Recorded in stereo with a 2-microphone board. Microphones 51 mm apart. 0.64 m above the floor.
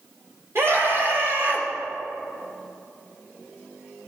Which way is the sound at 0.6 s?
50° right (ahead or behind).